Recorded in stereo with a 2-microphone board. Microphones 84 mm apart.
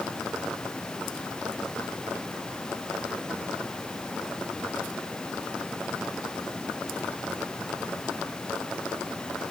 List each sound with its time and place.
Only background noise.